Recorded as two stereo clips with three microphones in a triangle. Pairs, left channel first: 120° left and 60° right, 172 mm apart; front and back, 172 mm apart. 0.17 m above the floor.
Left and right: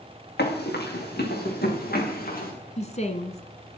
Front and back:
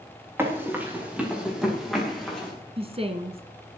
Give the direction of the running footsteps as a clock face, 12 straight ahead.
9 o'clock.